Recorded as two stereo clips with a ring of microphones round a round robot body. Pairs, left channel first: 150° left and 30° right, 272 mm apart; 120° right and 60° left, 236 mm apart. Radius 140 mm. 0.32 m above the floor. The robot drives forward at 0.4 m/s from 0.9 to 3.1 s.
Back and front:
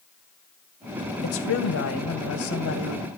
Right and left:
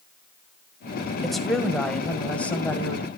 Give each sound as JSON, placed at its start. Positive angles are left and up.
{"t": 1.2, "sound": "a woman speaking", "azimuth_deg": 150, "distance_m": 2.0}